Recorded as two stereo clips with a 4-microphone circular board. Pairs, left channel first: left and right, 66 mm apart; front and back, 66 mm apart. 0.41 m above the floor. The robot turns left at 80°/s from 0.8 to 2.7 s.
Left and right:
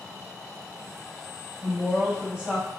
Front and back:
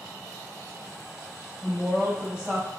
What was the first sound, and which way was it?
A woman speaking, 50° right.